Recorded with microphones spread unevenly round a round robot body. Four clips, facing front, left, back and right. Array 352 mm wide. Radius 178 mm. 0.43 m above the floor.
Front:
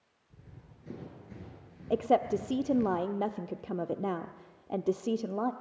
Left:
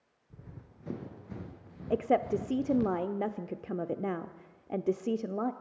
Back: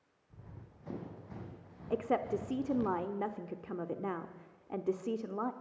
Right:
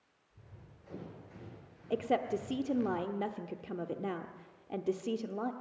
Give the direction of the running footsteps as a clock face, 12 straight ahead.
9 o'clock.